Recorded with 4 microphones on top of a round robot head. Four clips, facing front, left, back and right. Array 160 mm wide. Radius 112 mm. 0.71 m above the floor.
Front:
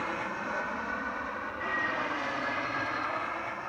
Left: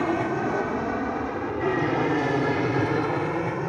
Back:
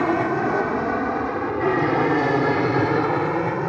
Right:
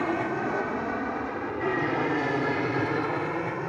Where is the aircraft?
170° left.